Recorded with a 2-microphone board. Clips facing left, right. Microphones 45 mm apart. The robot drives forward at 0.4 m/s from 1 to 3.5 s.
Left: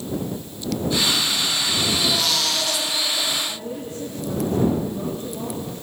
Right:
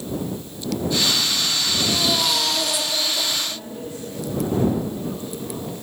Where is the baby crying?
10° right (ahead or behind), 5 m.